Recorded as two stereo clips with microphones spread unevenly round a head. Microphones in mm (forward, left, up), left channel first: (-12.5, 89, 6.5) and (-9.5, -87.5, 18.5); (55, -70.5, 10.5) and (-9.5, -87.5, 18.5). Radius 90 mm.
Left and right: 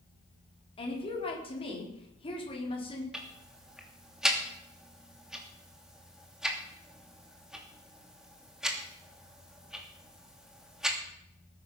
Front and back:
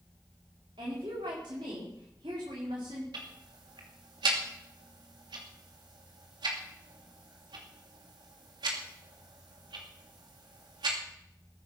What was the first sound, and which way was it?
A woman speaking, 150° left.